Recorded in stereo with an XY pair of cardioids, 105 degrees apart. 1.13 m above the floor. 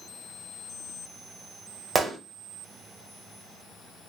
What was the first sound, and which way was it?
A gunshot, 30° right.